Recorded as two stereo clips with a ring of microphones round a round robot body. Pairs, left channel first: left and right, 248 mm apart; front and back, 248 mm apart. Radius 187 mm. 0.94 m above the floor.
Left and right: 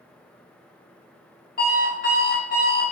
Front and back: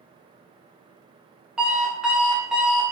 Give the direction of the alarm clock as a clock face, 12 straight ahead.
9 o'clock.